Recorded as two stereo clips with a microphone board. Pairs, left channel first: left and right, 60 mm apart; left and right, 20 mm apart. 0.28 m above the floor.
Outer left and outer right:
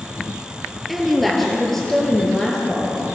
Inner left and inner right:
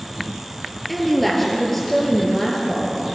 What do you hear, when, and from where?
0.9 s a woman speaking: centre (ahead or behind), 5 m; by 3.1 s 15° left (ahead or behind), 5 m